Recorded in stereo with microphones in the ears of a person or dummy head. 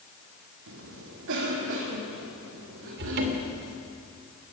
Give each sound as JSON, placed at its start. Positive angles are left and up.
{"t": 0.7, "sound": "a cough", "side_deg": -70, "distance_m": 3.0}
{"t": 3.0, "sound": "a cupboard door", "side_deg": -60, "distance_m": 2.5}